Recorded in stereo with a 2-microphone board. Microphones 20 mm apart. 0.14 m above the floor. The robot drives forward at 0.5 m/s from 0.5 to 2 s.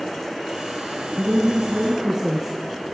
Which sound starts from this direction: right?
A woman speaking, at 1.2 s.